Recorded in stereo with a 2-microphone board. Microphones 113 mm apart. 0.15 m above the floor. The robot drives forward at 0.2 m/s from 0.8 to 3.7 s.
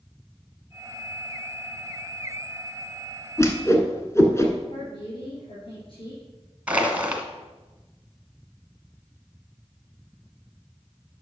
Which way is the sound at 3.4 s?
25° left (ahead or behind).